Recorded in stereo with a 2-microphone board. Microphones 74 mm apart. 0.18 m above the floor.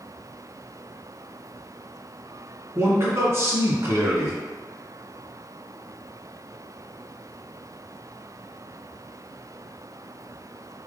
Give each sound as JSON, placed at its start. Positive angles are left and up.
{"t": 2.8, "sound": "a man speaking", "side_deg": -40, "distance_m": 1.7}